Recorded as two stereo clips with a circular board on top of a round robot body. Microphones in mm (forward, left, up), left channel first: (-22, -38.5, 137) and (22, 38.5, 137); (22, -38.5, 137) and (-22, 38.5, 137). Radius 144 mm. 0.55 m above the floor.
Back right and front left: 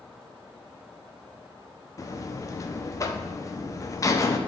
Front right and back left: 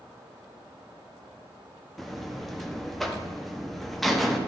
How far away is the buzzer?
About 1.0 m.